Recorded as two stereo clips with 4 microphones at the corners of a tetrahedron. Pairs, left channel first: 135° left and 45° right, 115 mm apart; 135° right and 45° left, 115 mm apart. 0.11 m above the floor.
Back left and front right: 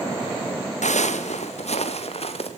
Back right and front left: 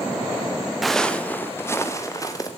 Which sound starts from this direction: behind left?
Footsteps, at 0.8 s.